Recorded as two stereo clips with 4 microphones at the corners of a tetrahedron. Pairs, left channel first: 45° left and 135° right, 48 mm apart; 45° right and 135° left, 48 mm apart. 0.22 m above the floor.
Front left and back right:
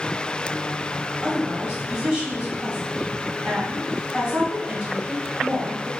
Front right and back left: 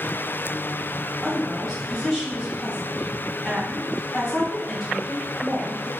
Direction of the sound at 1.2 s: 160° right.